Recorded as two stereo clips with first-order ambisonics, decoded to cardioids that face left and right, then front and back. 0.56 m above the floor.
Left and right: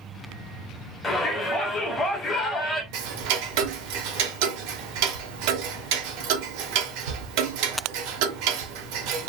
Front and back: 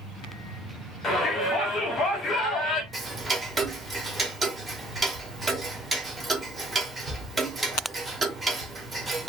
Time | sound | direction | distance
1.0 | a shout | 30° left | 1.1 m
2.9 | ticking | 100° right | 0.6 m